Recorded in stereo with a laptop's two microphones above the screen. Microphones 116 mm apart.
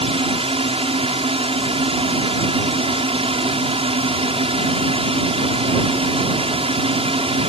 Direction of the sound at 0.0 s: 55° right (ahead or behind).